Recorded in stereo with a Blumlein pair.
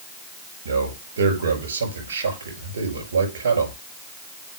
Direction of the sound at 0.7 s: 70° right.